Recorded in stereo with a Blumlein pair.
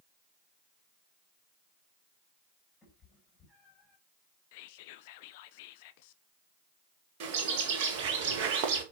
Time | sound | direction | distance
2.8 | a cat meowing | 20° left | 3.5 m
4.5 | whispering | 50° left | 0.5 m
7.2 | a bird | 45° right | 1.9 m